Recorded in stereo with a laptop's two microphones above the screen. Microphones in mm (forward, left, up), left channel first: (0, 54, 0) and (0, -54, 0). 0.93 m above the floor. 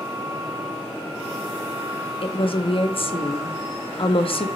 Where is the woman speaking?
55° left (ahead or behind), 1.1 m.